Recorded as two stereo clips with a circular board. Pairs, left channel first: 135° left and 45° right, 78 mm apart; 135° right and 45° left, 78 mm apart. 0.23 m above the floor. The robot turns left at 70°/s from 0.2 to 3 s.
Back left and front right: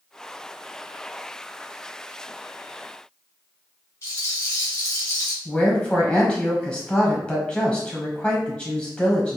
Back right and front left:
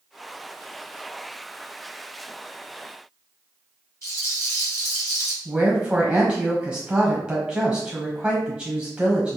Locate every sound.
4.0 s a rattle: straight behind, 1.5 m
5.5 s a woman speaking: 95° left, 1.1 m